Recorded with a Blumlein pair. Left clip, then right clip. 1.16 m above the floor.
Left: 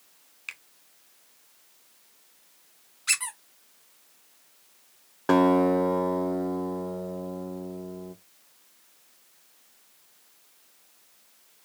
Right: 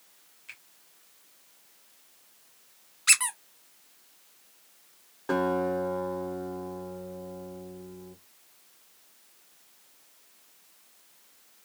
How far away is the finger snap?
About 1.5 m.